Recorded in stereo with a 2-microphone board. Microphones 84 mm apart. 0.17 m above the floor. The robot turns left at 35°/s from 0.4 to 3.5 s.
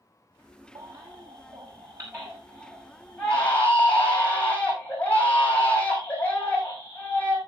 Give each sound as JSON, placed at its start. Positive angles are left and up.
{"t": 0.8, "sound": "a baby crying", "azimuth_deg": -100, "distance_m": 6.5}